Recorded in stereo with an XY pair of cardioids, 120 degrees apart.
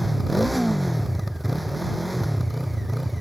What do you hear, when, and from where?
0.0 s a motorcycle: 5° left